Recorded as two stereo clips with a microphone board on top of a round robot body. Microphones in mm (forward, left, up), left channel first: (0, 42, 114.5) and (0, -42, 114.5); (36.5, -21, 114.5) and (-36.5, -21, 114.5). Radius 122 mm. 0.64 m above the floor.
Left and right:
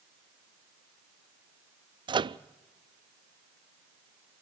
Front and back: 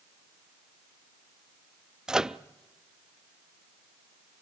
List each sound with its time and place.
2.1 s a microwave: 100° right, 0.6 m